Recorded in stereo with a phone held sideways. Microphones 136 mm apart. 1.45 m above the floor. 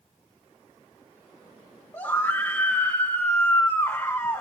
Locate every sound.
1.9 s a scream: 20° left (ahead or behind), 1.2 m